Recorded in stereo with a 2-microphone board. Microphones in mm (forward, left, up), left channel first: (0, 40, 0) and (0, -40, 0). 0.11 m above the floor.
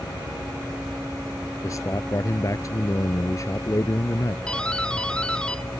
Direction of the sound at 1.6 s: 40° left (ahead or behind).